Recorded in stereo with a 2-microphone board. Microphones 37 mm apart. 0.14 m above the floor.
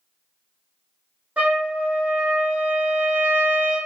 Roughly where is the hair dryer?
I don't hear a hair dryer.